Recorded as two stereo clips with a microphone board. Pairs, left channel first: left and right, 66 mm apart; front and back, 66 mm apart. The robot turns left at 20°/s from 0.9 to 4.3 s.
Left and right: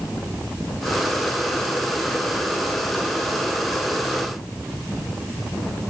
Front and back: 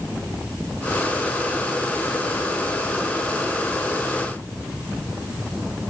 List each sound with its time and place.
Only background noise.